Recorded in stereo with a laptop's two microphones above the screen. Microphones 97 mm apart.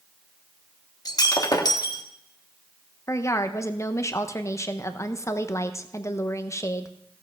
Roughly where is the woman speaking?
Left.